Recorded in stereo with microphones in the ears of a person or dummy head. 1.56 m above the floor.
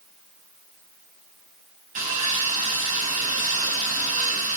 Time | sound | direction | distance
1.9 | sawing | 40° right (ahead or behind) | 4 m